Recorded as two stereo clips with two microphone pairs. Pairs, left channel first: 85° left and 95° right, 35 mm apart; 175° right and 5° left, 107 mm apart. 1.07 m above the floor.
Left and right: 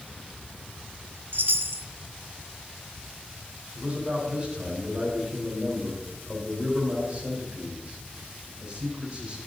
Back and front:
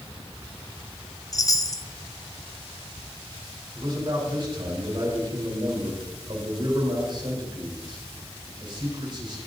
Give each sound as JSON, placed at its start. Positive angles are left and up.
{"t": 1.3, "sound": "a chime", "azimuth_deg": -115, "distance_m": 0.9}
{"t": 3.8, "sound": "a man speaking", "azimuth_deg": -35, "distance_m": 5.5}